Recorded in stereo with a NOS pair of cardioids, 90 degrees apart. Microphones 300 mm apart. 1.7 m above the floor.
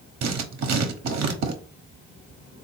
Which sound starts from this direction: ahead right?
Writing, at 0.2 s.